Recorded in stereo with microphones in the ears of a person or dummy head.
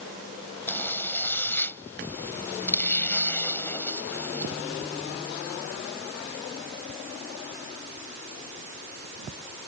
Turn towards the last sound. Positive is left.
turn(degrees=15)  # may be behind; listen again after turning